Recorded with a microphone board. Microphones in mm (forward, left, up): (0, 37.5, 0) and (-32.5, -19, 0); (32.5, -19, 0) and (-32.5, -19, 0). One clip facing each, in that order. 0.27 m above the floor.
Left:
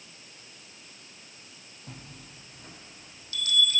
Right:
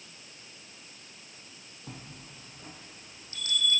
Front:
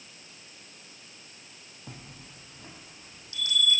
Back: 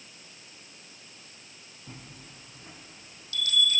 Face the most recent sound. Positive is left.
turn(degrees=-60)